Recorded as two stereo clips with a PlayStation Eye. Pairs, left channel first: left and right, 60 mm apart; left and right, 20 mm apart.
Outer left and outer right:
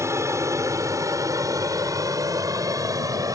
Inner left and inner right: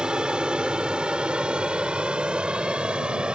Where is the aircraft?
50° right (ahead or behind); by 3.4 s 65° right (ahead or behind).